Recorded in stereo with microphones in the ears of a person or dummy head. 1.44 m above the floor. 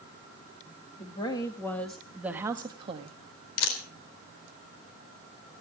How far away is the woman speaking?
About 2 m.